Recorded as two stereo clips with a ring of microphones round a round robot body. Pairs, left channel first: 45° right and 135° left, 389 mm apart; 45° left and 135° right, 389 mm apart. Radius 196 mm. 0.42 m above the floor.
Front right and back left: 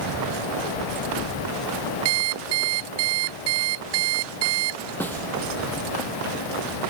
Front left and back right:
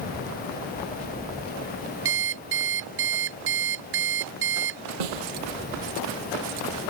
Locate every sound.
2.0 s an alarm clock: 165° left
5.0 s a snare drum: 130° right